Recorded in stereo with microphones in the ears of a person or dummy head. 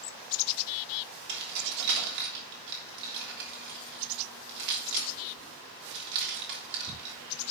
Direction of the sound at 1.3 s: 55° right (ahead or behind).